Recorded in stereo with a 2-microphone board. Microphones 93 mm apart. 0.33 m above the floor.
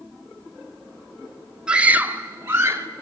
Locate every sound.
1.7 s a scream: 10° right (ahead or behind), 1.0 m; by 2.9 s 30° right (ahead or behind), 1.9 m